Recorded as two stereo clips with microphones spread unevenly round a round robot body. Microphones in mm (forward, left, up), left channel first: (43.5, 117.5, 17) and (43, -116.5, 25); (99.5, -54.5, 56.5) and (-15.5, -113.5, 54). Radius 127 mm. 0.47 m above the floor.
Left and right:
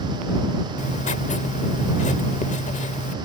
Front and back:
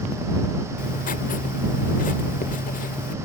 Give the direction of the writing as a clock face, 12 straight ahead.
11 o'clock.